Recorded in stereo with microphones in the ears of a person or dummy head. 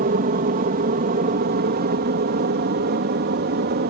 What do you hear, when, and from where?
0.0 s an aircraft: 40° right (ahead or behind); by 3.9 s 45° right (ahead or behind)